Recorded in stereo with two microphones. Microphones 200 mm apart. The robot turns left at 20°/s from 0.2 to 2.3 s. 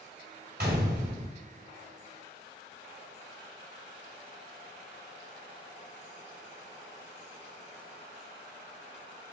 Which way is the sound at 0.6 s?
50° right (ahead or behind).